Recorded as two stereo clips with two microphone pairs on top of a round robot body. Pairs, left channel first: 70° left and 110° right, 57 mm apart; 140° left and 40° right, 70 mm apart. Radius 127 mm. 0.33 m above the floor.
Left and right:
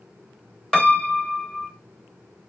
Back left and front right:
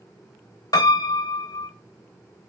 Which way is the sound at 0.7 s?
150° left.